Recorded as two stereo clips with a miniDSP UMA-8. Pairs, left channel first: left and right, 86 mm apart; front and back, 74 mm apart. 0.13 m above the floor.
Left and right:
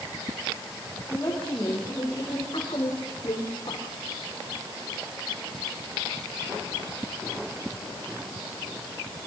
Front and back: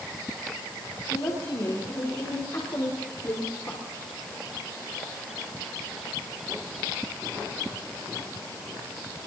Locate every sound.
1.1 s a woman speaking: 30° left, 9 m; by 3.8 s 55° left, 8 m